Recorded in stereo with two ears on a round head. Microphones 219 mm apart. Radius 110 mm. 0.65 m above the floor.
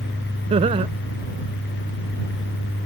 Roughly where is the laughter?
Right.